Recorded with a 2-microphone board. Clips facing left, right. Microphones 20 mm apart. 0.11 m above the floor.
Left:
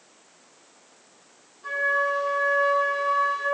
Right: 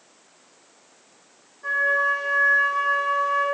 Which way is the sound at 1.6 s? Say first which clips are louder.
Right 3 dB; 50° right (ahead or behind).